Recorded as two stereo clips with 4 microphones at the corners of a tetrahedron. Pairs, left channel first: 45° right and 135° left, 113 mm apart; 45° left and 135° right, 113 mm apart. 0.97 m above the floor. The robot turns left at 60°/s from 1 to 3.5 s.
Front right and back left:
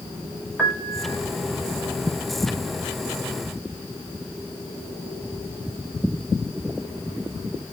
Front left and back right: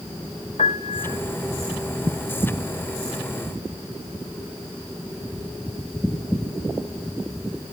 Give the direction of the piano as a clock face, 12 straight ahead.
11 o'clock.